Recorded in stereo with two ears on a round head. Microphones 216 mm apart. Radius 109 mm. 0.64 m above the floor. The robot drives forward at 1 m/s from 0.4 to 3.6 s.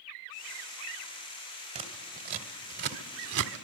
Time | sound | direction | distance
1.8 | scissors | 30° right (ahead or behind) | 2.5 m